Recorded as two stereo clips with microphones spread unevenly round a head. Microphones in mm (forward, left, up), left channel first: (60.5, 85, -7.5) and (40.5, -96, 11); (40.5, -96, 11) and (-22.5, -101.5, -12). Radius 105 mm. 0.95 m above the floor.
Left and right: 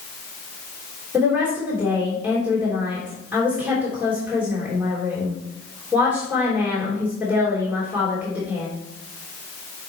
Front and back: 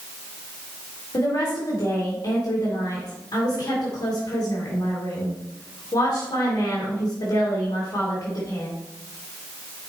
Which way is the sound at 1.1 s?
15° right.